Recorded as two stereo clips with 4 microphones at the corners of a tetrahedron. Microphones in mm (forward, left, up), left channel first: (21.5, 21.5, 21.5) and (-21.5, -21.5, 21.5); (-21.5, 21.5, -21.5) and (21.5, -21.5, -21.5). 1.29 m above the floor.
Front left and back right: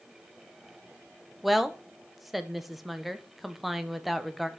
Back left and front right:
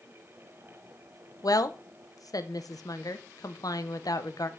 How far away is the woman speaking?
About 0.8 m.